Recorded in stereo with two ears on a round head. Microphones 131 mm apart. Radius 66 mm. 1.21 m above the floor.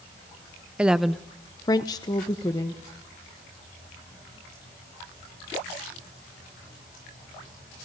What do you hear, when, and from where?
0.8 s a woman speaking: 10° right (ahead or behind), 0.8 m; by 2.8 s 25° left (ahead or behind), 1.5 m